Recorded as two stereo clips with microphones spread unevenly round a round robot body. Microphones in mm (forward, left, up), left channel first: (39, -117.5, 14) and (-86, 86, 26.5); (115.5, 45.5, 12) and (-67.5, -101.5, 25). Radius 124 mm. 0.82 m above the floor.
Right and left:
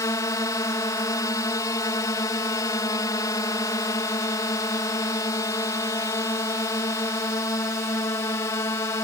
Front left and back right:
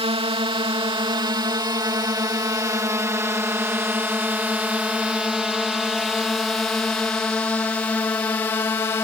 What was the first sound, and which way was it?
A drone, 110° right.